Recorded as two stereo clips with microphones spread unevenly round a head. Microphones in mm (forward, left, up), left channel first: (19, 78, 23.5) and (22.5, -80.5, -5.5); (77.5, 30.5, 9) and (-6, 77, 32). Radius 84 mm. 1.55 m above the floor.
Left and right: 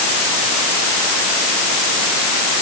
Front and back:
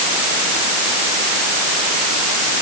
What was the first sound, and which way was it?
Only background noise.